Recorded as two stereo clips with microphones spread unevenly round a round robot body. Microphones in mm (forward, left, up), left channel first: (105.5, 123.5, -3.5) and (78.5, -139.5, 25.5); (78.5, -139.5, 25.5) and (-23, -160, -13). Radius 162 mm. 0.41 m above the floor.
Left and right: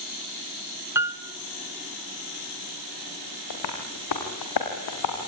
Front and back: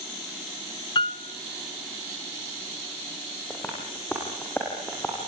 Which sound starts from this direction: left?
Tapping, at 3.5 s.